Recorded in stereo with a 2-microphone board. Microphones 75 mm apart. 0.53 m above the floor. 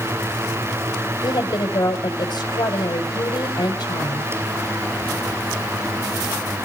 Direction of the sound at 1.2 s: 70° left (ahead or behind).